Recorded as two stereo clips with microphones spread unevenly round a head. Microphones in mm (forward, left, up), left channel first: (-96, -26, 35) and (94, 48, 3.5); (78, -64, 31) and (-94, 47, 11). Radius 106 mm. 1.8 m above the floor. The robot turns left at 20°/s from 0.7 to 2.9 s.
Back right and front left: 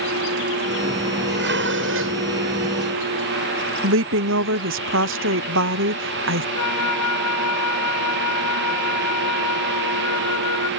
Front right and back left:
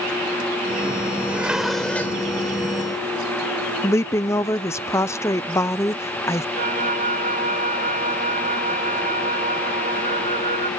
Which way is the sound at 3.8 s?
35° left.